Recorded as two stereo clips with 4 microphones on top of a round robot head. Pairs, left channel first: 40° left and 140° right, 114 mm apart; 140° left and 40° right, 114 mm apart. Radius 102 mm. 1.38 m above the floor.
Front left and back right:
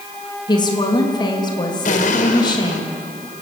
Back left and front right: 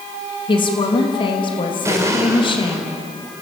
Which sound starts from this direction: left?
A woman speaking, at 0.5 s.